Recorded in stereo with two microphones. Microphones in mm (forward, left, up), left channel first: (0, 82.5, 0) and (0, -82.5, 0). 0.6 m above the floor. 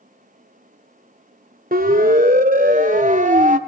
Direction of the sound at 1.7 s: 65° right (ahead or behind).